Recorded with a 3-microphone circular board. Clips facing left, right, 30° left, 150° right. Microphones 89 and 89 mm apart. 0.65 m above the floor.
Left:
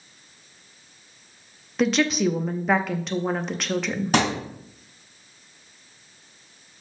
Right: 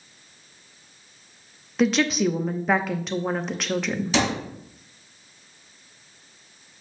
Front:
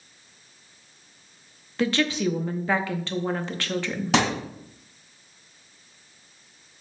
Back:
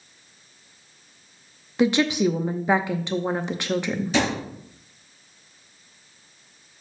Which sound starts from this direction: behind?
A woman speaking, at 1.8 s.